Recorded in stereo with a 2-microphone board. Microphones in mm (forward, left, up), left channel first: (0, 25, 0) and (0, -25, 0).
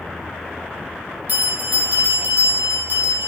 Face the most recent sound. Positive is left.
turn(degrees=-40)  # may be behind; listen again after turning